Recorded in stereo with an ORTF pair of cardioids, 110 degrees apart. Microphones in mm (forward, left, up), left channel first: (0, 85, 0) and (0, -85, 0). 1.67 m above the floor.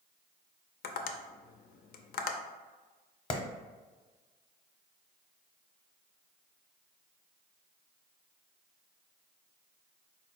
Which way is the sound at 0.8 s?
65° left.